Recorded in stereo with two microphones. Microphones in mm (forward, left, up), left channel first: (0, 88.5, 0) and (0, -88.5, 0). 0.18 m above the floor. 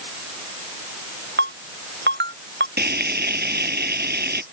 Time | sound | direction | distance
1.4 | a ringtone | 80° right | ?
2.8 | frying | 70° right (ahead or behind) | ?